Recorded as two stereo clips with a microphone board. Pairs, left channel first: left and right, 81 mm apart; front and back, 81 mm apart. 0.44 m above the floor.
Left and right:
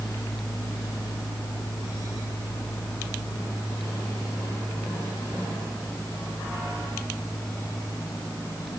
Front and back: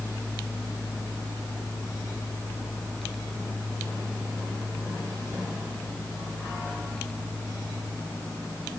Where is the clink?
I don't hear a clink.